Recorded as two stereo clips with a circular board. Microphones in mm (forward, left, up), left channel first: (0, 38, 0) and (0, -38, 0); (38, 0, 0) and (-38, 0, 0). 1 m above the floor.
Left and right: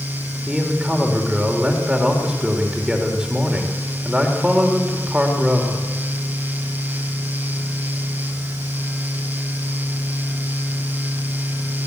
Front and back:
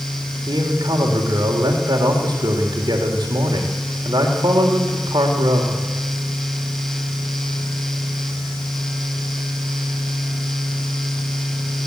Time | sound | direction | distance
0.5 | a man speaking | 170° right | 3 m